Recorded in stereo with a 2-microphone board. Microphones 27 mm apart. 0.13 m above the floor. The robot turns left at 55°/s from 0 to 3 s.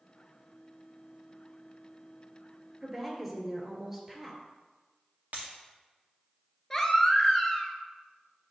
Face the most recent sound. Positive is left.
turn(degrees=15)  # may be behind; listen again after turning